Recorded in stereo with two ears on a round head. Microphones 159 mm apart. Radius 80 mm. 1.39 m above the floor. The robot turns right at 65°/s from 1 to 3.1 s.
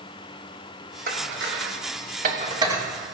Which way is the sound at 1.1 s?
50° right (ahead or behind).